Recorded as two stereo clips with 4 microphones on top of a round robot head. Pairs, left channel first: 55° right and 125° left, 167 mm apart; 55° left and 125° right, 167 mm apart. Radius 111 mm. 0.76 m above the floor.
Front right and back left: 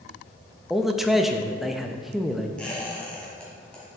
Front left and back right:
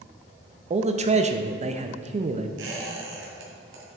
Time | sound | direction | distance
0.7 | a man speaking | 145° right | 0.7 m
2.6 | a squeak | 140° right | 1.8 m